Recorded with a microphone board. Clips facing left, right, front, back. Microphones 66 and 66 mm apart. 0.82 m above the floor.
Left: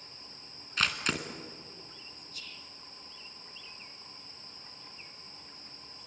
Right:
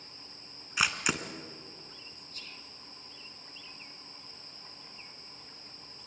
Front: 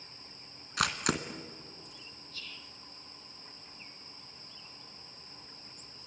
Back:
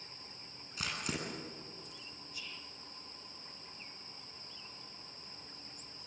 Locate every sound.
0.8 s a camera shutter: 10° right, 2 m
2.3 s whispering: 110° right, 1.3 m